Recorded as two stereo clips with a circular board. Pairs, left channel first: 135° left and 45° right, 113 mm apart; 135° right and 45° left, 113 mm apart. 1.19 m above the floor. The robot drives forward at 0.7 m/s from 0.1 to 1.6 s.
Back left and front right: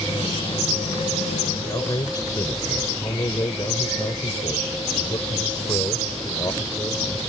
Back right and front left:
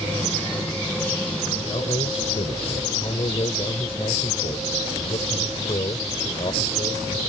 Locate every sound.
1.6 s a man speaking: 170° right